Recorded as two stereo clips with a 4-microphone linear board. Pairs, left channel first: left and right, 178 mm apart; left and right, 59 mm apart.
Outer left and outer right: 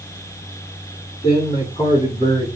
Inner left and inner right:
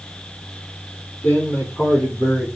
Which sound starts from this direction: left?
A man speaking, at 1.2 s.